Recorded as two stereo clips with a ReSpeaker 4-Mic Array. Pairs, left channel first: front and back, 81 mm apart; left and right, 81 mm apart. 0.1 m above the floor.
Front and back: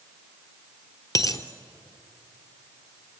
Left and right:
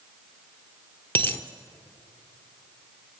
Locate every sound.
1.1 s a dropped coin: 30° left, 1.2 m